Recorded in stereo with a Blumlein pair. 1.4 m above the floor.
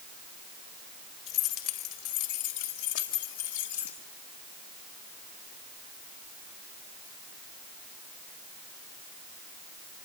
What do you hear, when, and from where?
1.3 s keys jangling: 40° left, 4 m; by 4.0 s 60° left, 5.5 m